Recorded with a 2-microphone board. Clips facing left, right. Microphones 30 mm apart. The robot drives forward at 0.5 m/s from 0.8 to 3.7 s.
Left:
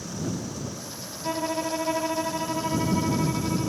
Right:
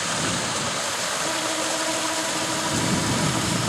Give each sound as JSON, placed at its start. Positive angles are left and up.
{"t": 0.0, "sound": "running water", "side_deg": -80}
{"t": 1.2, "sound": "a violin", "side_deg": 20}